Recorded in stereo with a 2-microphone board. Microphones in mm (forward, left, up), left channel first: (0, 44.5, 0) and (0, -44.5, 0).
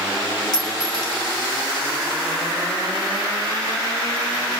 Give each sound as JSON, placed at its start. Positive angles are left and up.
{"t": 0.5, "sound": "a clink", "side_deg": 50, "distance_m": 4.5}